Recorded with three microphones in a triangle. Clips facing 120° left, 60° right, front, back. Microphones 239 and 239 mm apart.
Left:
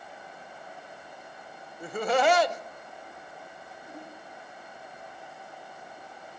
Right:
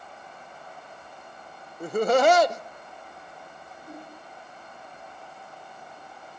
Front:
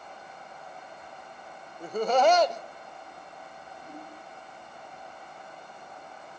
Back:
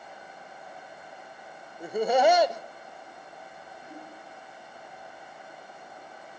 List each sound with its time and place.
1.8 s laughter: 105° right, 0.6 m
3.8 s a whoosh: 40° right, 8.5 m